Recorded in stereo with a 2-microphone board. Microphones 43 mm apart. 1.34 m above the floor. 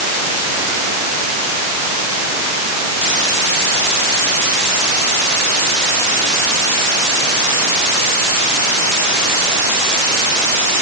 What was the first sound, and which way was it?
Only background noise.